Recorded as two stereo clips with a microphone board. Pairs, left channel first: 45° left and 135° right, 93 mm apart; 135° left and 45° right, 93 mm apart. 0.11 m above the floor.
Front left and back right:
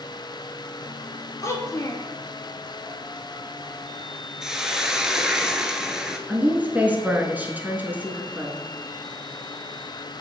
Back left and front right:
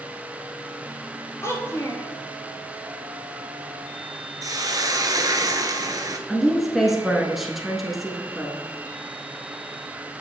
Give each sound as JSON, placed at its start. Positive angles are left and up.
{"t": 1.4, "sound": "a child speaking", "azimuth_deg": 85, "distance_m": 0.9}
{"t": 4.4, "sound": "a hiss", "azimuth_deg": -55, "distance_m": 0.7}
{"t": 6.3, "sound": "a woman speaking", "azimuth_deg": -125, "distance_m": 1.1}